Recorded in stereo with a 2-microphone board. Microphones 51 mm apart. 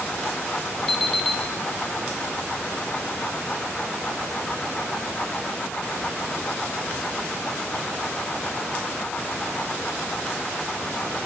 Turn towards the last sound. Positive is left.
turn(degrees=10)  # may be behind; listen again after turning